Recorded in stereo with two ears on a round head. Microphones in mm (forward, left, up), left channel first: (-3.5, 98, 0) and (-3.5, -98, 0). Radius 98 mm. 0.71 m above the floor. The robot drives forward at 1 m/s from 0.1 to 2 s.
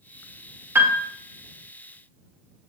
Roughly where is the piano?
Centre.